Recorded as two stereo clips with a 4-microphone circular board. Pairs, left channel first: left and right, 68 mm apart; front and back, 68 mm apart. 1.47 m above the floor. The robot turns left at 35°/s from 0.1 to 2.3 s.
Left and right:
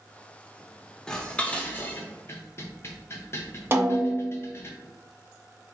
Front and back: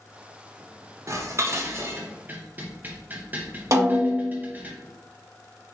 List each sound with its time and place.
1.1 s dishes clattering: 170° left, 0.6 m; by 4.7 s 125° left, 0.6 m
3.7 s a snare drum: 145° right, 0.9 m